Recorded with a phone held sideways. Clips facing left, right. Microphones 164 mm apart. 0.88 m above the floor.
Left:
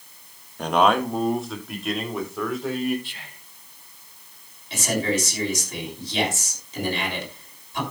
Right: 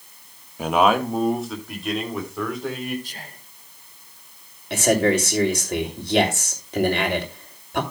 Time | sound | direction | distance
0.6 | a man speaking | 5° right (ahead or behind) | 1.2 m
3.0 | whispering | 40° right (ahead or behind) | 0.7 m
4.7 | a man speaking | 60° right (ahead or behind) | 3 m